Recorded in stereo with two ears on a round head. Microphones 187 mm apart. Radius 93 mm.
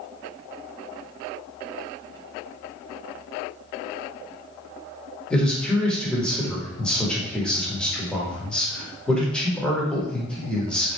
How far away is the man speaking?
About 1.1 m.